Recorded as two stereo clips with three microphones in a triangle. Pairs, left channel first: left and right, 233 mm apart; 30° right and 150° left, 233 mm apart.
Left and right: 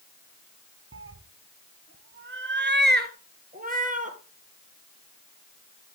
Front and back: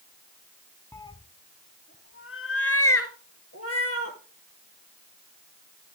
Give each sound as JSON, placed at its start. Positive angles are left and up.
{"t": 0.9, "sound": "a cat meowing", "azimuth_deg": -110, "distance_m": 0.7}